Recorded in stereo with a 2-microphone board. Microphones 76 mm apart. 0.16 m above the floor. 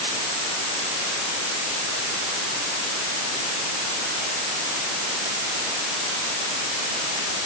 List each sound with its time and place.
Only background noise.